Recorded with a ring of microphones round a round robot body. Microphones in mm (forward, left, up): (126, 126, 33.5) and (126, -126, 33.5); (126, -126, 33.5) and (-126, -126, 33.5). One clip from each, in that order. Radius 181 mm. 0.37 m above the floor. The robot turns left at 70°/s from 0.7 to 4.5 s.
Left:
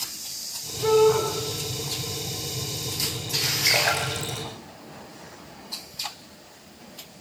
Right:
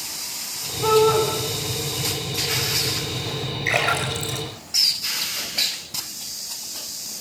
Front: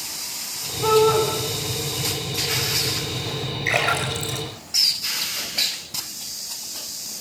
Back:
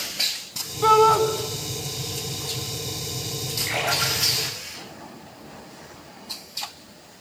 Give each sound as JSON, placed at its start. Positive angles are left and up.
{"t": 0.8, "sound": "a shout", "azimuth_deg": -150, "distance_m": 4.0}
{"t": 3.7, "sound": "a splash", "azimuth_deg": 15, "distance_m": 8.0}